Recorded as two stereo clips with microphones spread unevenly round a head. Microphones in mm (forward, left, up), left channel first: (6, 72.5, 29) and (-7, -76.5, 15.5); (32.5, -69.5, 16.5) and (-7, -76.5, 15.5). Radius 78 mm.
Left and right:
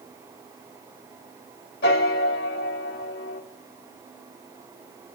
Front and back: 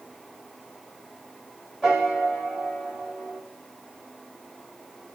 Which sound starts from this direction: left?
A piano, at 1.8 s.